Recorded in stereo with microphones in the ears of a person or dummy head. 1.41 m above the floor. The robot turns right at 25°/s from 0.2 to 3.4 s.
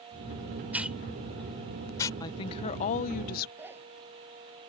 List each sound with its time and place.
0.7 s a hiss: 10° right (ahead or behind); by 2.1 s 25° left (ahead or behind)
2.2 s a woman speaking: 30° left (ahead or behind); by 3.5 s 60° left (ahead or behind)
3.6 s a zipper: 10° right (ahead or behind)